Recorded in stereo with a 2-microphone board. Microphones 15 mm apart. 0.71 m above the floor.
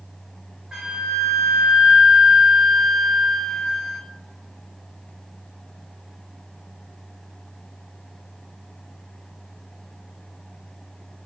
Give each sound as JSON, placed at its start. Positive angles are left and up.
{"t": 0.7, "sound": "a flute", "side_deg": -50, "distance_m": 1.4}